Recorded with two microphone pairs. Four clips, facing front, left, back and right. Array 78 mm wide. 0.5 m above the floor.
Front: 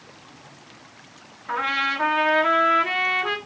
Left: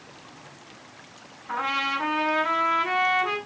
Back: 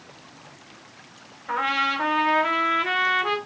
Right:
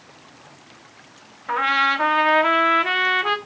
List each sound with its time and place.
1.5 s a trumpet: 100° right, 1.1 m